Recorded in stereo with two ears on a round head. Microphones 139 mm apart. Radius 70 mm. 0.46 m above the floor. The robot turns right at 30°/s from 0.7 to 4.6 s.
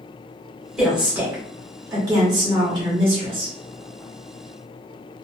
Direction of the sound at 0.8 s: 175° right.